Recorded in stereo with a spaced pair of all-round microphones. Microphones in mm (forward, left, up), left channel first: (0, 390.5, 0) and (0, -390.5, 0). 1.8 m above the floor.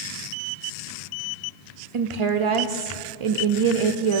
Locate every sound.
1.9 s a woman speaking: 45° right (ahead or behind), 0.5 m